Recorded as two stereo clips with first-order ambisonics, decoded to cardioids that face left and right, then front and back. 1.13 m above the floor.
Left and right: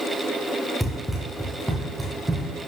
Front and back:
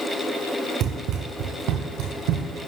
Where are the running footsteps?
175° left, 1.3 m; by 2.5 s 175° right, 2.5 m.